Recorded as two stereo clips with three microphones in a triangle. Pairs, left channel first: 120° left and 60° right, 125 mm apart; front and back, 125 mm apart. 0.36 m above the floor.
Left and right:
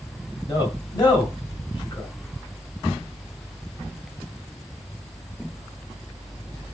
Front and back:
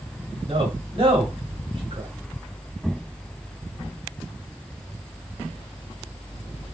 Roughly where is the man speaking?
Behind.